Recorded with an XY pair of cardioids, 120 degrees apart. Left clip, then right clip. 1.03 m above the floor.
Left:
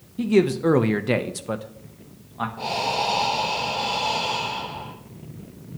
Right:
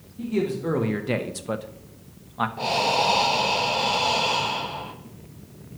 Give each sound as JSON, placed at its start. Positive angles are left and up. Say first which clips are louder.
{"t": 0.2, "sound": "a man speaking", "louder": "left 7 dB", "azimuth_deg": 65, "distance_m": 0.7}
{"t": 2.6, "sound": "breathing", "louder": "right 2 dB", "azimuth_deg": -20, "distance_m": 0.9}